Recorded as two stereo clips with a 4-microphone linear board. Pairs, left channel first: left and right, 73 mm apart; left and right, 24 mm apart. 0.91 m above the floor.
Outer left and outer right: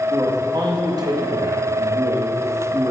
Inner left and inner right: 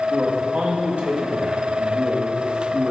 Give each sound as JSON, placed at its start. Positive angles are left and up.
{"t": 0.1, "sound": "a man speaking", "side_deg": -65, "distance_m": 1.3}